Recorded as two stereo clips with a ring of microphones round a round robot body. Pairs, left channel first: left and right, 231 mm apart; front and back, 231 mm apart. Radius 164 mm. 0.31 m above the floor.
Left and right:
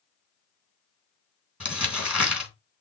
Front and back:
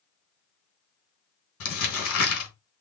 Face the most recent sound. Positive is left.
turn(degrees=-5)